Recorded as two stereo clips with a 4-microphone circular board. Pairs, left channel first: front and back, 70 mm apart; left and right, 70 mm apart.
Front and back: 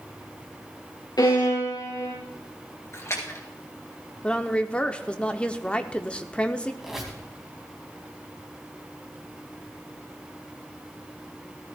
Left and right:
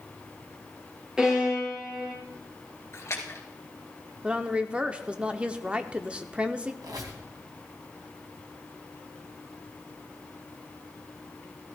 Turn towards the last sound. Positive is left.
turn(degrees=-95)